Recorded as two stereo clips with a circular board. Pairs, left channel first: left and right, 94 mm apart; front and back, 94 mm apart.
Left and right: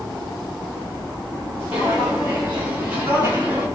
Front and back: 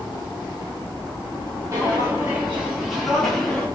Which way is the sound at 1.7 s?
155° right.